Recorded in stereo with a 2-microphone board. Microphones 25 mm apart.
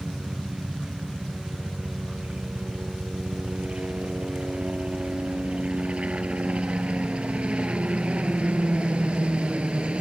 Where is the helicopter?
45° right (ahead or behind).